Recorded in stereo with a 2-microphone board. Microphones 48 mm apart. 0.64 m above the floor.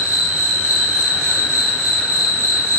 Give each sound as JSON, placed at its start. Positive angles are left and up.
{"t": 0.0, "sound": "an insect", "side_deg": 75, "distance_m": 1.1}